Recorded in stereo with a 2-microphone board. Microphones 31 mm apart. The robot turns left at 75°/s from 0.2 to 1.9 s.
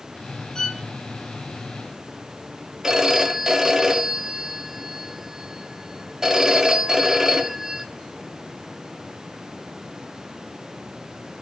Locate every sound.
0.6 s a violin: 25° left (ahead or behind), 1.5 m; by 0.8 s 5° left (ahead or behind), 1.5 m
2.8 s a phone ringing: 15° right (ahead or behind), 1.6 m